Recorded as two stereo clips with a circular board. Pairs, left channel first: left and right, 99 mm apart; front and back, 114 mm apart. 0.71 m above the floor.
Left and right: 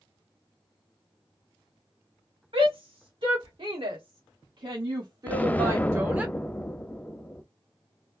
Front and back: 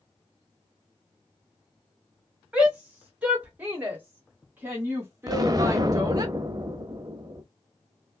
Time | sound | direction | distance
2.5 | a shout | 100° right | 2 m
5.3 | an explosion | 155° left | 0.5 m